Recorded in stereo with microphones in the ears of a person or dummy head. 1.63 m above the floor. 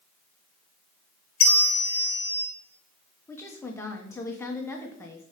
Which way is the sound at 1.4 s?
35° left (ahead or behind).